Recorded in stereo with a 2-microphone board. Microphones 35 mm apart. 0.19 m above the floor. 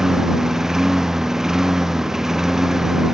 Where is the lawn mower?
15° right (ahead or behind).